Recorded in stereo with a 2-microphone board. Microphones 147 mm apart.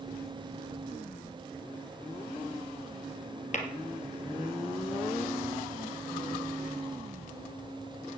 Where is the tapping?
50° left (ahead or behind), 2.5 m.